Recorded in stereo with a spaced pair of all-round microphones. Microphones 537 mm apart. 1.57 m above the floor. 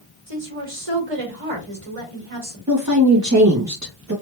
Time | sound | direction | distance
0.3 | a woman speaking | 75° right (ahead or behind) | 1.3 m
2.7 | a woman speaking | 35° right (ahead or behind) | 0.6 m